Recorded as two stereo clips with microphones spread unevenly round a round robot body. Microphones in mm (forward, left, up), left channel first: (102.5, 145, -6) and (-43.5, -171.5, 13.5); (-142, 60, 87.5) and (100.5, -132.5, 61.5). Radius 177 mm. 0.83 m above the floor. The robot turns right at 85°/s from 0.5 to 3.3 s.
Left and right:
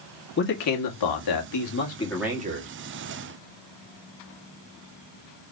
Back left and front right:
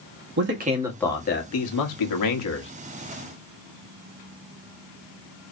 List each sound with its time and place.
0.4 s a man speaking: 10° left, 1.5 m; by 2.7 s 160° right, 1.5 m